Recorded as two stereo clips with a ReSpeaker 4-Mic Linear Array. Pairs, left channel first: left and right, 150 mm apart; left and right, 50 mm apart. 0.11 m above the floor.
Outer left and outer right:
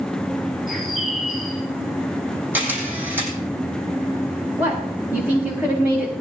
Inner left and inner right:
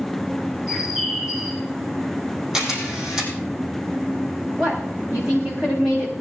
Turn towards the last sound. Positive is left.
turn(degrees=-10)  # may be behind; listen again after turning